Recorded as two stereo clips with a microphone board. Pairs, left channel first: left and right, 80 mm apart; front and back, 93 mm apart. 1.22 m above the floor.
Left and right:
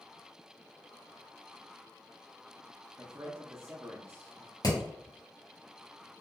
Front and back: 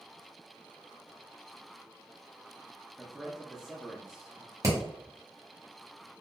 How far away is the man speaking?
About 0.5 m.